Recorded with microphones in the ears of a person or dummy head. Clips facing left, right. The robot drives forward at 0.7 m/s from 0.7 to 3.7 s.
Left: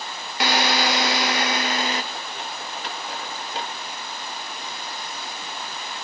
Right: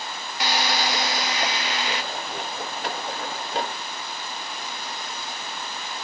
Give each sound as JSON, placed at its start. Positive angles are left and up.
{"t": 0.4, "sound": "a drill", "side_deg": 55, "distance_m": 1.0}